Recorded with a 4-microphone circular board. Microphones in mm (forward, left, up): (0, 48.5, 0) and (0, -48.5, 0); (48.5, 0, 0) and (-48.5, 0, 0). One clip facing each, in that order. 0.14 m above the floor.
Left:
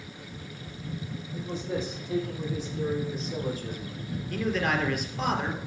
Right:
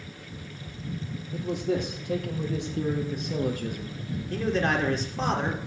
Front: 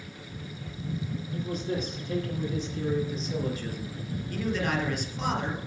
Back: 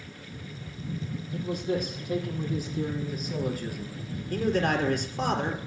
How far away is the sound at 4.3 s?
About 3 m.